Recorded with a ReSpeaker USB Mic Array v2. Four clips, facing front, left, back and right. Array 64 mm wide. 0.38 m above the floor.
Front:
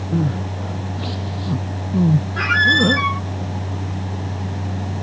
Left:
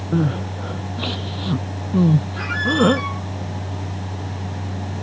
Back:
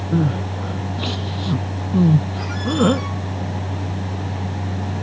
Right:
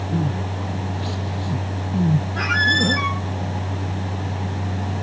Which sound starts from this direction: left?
Crying, at 0.1 s.